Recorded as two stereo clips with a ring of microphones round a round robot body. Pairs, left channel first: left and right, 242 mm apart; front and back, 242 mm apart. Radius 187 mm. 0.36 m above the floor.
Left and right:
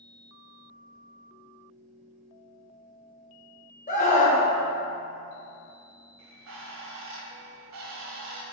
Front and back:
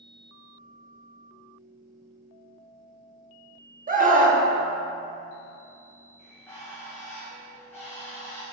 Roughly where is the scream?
Behind left.